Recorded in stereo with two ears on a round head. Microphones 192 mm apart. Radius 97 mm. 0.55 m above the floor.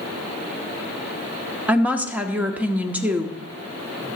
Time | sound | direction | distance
1.7 | a woman speaking | 5° right (ahead or behind) | 1.0 m